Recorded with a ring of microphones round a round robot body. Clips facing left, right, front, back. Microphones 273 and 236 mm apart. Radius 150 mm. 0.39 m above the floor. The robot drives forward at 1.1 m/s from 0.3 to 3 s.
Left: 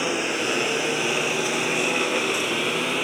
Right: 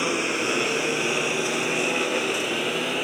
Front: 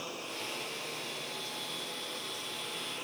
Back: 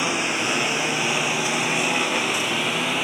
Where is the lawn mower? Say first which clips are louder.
Even, back 16 dB; 175° right; by 3.0 s 175° left.